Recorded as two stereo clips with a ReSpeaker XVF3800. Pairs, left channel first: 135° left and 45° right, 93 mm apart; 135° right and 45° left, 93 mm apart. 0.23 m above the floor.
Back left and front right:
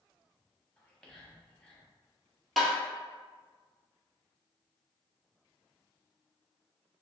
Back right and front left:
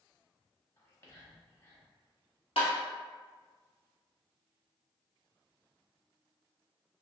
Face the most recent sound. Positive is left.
turn(degrees=-135)